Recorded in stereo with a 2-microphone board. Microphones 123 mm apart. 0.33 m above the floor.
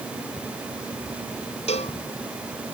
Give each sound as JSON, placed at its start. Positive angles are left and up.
{"t": 1.7, "sound": "a cowbell", "side_deg": 70}